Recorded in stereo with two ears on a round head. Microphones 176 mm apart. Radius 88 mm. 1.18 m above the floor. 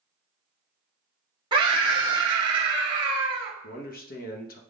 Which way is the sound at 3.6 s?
45° left (ahead or behind).